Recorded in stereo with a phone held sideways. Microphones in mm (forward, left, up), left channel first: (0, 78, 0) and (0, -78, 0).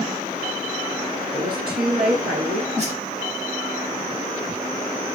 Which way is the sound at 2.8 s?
45° right (ahead or behind).